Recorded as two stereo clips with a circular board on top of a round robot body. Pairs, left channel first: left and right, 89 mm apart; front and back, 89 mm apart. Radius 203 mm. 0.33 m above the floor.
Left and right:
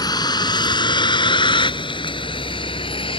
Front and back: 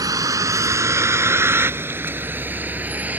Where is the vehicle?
130° left; by 3.2 s 110° left.